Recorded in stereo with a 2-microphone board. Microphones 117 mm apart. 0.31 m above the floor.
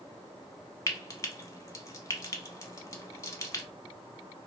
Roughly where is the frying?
Left.